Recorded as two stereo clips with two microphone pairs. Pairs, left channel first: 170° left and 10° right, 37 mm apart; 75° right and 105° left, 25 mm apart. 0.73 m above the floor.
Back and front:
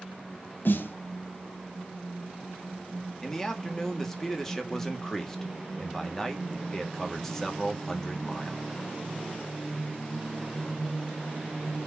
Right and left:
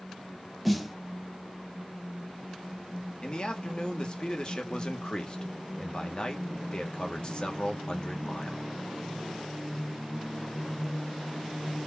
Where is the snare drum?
170° right, 0.7 m.